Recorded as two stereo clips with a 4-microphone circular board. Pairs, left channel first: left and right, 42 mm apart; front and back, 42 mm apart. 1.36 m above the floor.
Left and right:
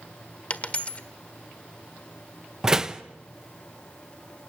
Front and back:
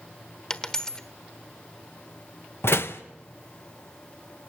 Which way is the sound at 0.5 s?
65° left.